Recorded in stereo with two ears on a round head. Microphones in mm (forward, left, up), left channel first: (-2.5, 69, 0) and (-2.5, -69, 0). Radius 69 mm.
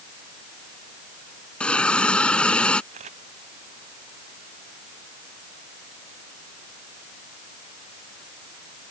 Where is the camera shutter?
45° right (ahead or behind).